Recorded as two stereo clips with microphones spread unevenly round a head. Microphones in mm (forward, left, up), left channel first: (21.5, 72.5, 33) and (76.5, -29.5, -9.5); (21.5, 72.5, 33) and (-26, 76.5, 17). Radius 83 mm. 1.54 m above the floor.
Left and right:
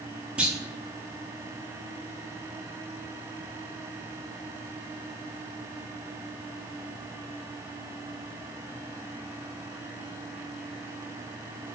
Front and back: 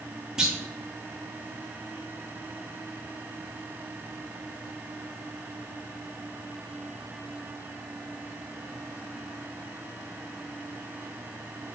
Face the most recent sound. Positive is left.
turn(degrees=65)